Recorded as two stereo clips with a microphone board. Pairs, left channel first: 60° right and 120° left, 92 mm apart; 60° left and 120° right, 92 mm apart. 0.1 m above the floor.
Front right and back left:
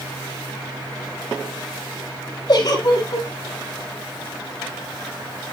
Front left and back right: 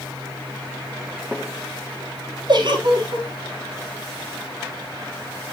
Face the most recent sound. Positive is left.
turn(degrees=-100)